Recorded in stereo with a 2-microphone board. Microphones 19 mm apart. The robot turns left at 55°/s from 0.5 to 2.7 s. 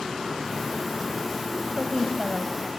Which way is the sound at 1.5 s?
25° right (ahead or behind).